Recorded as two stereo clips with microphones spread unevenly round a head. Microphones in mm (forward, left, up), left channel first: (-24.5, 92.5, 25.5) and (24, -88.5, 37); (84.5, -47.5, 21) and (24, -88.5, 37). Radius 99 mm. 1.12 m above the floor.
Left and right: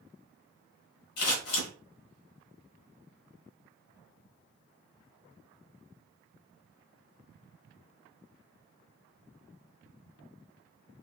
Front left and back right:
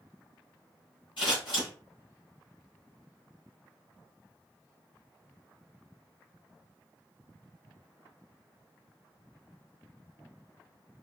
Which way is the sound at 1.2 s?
100° left.